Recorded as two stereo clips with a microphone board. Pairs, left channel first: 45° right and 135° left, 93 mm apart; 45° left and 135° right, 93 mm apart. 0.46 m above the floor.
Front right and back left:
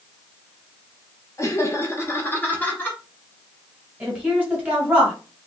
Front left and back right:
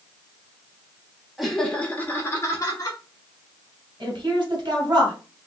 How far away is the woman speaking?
About 2.5 m.